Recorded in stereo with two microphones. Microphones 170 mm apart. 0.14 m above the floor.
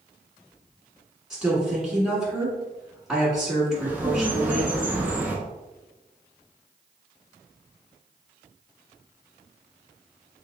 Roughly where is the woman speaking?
Centre.